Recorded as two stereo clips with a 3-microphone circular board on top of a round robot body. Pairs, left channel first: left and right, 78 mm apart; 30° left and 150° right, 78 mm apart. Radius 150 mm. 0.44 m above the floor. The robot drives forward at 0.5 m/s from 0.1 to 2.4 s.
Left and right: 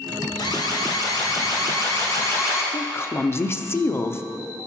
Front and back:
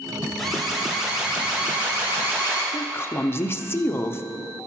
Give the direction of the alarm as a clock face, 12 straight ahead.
8 o'clock.